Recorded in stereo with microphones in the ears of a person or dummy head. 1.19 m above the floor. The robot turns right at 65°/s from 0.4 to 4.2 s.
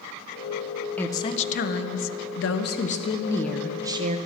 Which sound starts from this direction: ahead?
A woman speaking, at 1.0 s.